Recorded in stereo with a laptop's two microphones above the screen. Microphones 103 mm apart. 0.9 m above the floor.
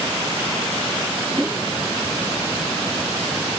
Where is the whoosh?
15° right (ahead or behind).